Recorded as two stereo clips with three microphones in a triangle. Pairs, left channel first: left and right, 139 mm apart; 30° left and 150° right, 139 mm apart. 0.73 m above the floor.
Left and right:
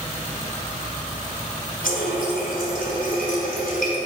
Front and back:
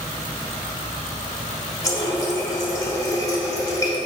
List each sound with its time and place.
1.8 s a running tap: 95° left, 2.5 m